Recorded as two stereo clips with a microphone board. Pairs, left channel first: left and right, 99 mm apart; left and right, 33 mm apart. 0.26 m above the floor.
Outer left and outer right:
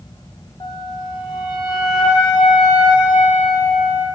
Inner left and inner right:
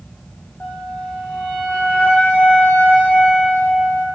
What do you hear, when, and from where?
0.6 s a flute: 55° left (ahead or behind), 0.6 m